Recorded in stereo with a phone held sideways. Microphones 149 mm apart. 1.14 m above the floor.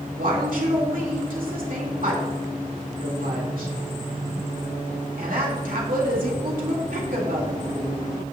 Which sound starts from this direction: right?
A woman speaking, at 0.2 s.